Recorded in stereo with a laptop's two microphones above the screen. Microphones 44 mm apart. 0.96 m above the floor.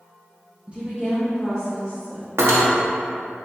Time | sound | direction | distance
0.7 | a woman speaking | 35° right (ahead or behind) | 0.5 m
2.4 | cutlery clinking | 85° right | 0.8 m